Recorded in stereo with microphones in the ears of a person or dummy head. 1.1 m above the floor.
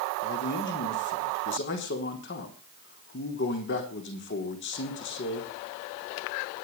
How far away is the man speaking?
About 3.5 m.